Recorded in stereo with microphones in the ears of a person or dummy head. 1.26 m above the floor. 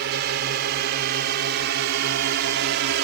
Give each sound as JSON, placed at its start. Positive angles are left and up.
{"t": 0.0, "sound": "a drone", "side_deg": -55}